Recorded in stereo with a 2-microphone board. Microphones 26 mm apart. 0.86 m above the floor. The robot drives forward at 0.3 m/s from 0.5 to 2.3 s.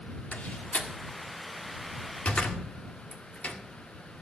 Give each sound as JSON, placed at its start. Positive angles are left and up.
{"t": 0.3, "sound": "a door slam", "side_deg": 80, "distance_m": 1.6}